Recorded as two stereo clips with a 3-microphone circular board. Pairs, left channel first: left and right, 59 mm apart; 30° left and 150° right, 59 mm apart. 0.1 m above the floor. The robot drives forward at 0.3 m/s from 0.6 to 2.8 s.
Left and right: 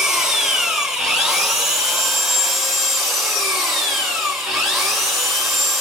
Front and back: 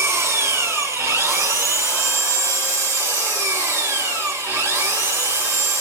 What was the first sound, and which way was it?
An engine running, 170° right.